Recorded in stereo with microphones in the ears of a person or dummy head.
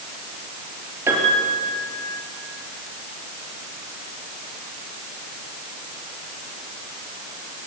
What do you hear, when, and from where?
1.1 s a piano: 15° right (ahead or behind), 4.5 m